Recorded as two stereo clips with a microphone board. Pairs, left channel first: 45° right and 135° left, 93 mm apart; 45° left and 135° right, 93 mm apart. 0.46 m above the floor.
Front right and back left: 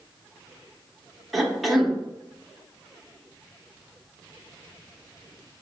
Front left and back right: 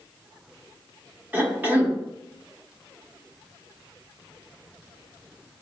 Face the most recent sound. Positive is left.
turn(degrees=-140)